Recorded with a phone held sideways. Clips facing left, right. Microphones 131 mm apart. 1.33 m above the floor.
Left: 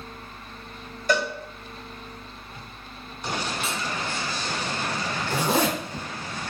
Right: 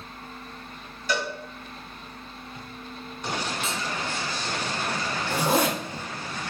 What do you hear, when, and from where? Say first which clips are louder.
1.1 s a cowbell: left 4 dB; 45° left (ahead or behind), 1.0 m
3.6 s cutlery clinking: even; 10° left (ahead or behind), 0.7 m
5.3 s a zipper: even; 40° right (ahead or behind), 1.6 m